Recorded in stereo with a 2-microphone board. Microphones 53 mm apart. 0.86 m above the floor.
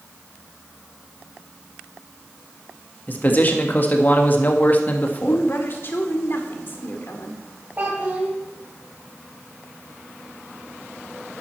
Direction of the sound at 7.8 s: 40° right (ahead or behind).